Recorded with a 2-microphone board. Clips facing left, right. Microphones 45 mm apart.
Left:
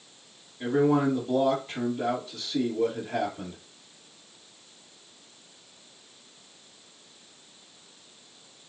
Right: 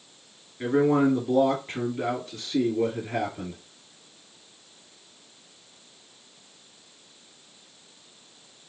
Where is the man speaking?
40° right (ahead or behind), 1.4 m.